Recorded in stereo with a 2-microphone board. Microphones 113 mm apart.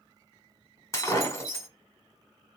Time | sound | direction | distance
0.9 | breaking glass | 30° left (ahead or behind) | 1.6 m